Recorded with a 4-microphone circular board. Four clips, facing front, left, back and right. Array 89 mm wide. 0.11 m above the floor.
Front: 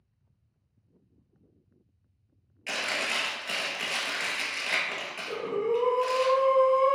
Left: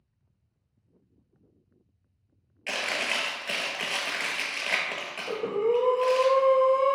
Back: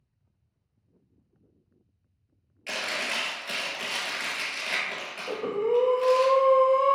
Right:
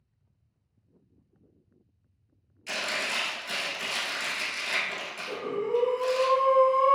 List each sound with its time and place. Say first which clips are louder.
2.7 s chewing: left 2 dB, even; 85° left, 0.8 m
5.3 s breathing: left 4 dB, back 2 dB; 135° left, 0.6 m